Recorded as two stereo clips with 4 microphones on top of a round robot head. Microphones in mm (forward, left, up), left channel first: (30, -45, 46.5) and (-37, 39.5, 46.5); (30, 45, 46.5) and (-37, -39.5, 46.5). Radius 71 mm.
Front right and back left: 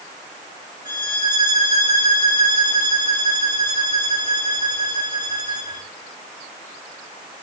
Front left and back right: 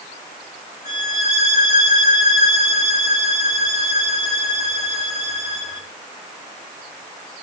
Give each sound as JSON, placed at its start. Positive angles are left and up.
{"t": 0.8, "sound": "a violin", "azimuth_deg": 70, "distance_m": 3.0}